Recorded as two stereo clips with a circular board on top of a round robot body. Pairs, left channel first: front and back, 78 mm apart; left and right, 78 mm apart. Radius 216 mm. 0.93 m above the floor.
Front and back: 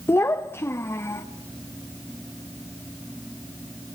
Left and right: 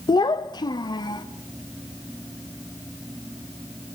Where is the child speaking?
65° left, 1.0 m.